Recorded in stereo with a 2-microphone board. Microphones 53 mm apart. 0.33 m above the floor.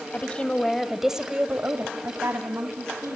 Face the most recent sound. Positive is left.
turn(degrees=-65)  # may be behind; listen again after turning